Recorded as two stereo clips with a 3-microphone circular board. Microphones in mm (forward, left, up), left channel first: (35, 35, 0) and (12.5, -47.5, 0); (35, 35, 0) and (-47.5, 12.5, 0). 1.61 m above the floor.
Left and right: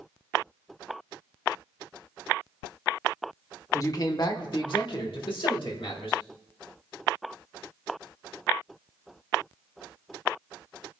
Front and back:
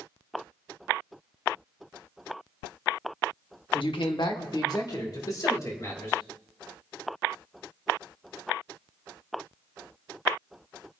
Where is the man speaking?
25° left, 1.2 m; by 6.2 s 70° left, 3 m.